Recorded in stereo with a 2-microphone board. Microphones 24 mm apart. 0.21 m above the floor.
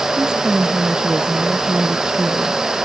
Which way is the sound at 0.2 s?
40° right (ahead or behind).